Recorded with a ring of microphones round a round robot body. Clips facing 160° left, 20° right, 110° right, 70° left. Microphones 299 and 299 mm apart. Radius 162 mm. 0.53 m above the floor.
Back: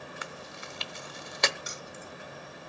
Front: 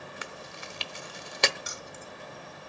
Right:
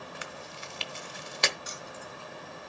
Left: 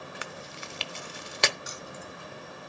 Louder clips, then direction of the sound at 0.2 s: Even, left 1 dB; 40° left.